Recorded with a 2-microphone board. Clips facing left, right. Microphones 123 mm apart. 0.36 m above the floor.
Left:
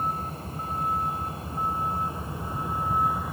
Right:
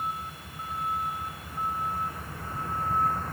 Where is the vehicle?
40° left (ahead or behind); by 3.3 s 10° left (ahead or behind).